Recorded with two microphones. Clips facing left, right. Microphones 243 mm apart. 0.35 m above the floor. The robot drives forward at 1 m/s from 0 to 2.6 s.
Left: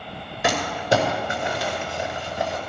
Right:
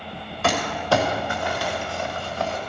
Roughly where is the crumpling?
Centre.